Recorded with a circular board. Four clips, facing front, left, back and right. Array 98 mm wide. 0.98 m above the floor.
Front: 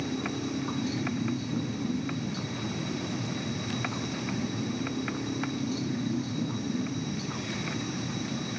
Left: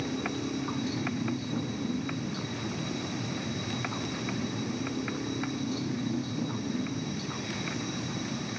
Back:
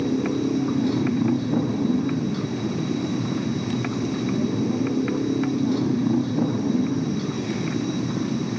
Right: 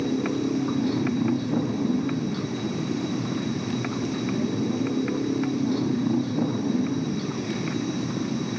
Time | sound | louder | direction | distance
0.0 | a motorcycle | right 8 dB, back 10 dB | 150° right | ?